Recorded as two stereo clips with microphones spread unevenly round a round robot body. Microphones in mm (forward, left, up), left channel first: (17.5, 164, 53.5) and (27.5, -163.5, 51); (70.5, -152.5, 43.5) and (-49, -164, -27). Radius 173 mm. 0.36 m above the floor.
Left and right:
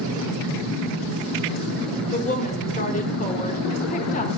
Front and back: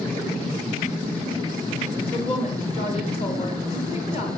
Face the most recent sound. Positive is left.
turn(degrees=60)